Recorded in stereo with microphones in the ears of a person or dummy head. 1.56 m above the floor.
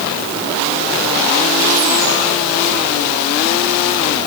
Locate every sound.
Only background noise.